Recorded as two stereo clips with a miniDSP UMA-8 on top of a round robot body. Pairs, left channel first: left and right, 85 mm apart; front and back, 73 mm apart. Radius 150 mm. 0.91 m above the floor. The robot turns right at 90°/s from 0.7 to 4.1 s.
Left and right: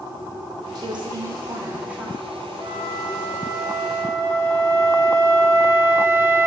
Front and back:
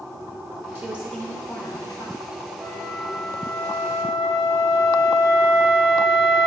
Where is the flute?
120° right, 1.2 m; by 6.5 s 15° left, 1.2 m.